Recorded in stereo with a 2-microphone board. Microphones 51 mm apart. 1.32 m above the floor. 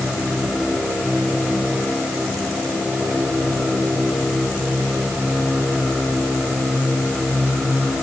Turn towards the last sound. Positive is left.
No sound to turn to.